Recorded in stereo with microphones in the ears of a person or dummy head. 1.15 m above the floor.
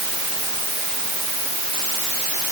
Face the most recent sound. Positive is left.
No sound to turn to.